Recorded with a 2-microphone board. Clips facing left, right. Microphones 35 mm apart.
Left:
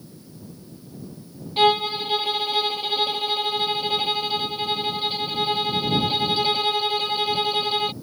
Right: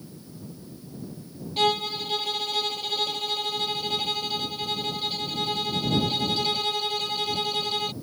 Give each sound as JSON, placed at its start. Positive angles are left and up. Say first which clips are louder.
{"t": 1.6, "sound": "a violin", "louder": "left 5 dB", "side_deg": 25}